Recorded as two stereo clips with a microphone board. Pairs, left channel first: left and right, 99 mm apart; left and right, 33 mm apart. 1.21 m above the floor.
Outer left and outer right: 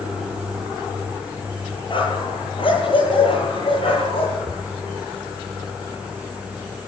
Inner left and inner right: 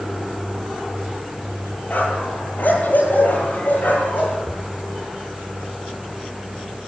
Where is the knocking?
45° right (ahead or behind), 3.5 m.